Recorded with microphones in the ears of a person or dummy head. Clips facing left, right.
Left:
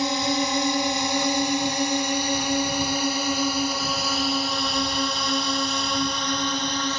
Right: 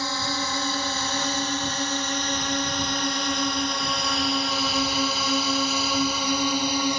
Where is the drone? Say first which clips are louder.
Left 6 dB; 20° left (ahead or behind); by 7.0 s 10° right (ahead or behind).